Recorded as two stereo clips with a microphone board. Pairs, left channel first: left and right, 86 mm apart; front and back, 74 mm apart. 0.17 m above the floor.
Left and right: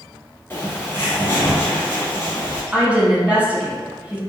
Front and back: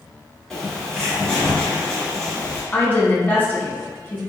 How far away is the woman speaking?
About 1.1 m.